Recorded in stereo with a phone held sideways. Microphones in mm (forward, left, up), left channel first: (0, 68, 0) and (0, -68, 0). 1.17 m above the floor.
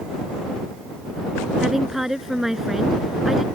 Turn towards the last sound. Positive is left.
turn(degrees=0)  # may be behind; listen again after turning